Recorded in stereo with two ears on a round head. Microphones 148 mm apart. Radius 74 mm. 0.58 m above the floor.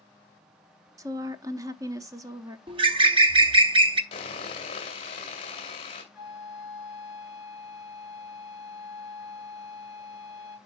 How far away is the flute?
About 2.5 m.